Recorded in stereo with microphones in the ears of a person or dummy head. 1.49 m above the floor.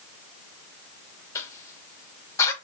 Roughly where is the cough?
Centre.